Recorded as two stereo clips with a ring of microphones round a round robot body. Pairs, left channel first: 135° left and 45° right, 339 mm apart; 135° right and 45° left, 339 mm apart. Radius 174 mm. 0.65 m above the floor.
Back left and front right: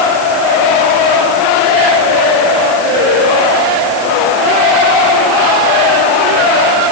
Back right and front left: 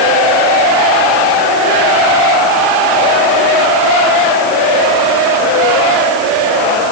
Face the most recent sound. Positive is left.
No sound to turn to.